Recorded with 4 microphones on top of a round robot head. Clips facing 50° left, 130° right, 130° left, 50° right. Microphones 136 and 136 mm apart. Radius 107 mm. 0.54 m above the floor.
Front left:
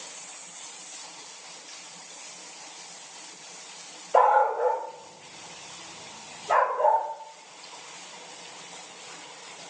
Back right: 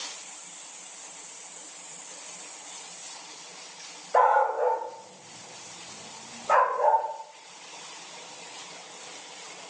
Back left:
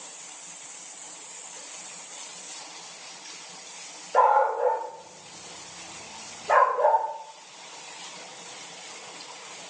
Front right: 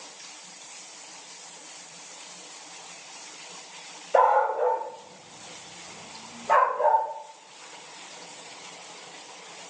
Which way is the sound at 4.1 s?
25° right.